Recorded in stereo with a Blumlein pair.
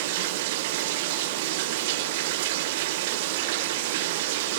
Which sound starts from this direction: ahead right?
Running water, at 0.0 s.